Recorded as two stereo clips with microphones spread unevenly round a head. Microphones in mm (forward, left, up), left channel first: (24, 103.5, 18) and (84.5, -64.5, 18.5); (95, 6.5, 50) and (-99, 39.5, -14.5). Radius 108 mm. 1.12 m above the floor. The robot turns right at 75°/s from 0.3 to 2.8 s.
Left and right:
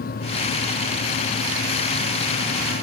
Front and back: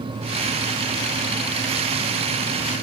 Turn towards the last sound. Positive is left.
No sound to turn to.